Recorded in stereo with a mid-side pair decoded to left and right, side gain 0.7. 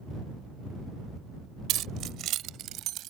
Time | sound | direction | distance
1.7 | keys jangling | 50° right | ?